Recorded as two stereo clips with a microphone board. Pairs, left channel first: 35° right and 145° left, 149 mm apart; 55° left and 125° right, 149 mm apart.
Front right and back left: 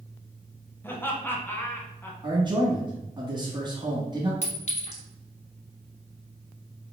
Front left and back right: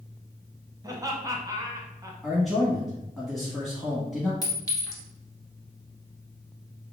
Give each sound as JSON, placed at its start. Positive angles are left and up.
{"t": 0.8, "sound": "laughter", "azimuth_deg": -95, "distance_m": 1.1}
{"t": 2.2, "sound": "a man speaking", "azimuth_deg": 145, "distance_m": 1.1}
{"t": 4.4, "sound": "a clink", "azimuth_deg": -5, "distance_m": 1.5}